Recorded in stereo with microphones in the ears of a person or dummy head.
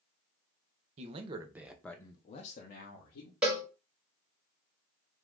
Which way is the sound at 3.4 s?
5° right (ahead or behind).